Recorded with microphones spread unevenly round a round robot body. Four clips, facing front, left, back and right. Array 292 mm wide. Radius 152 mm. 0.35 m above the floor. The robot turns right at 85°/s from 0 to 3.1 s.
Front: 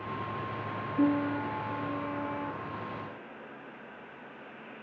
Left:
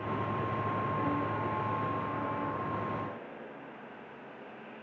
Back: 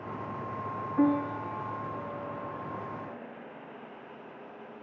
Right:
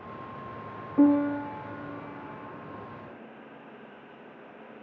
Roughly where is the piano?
Right.